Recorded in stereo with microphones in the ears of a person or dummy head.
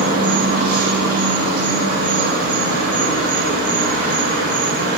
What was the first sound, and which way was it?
An insect, 55° right (ahead or behind).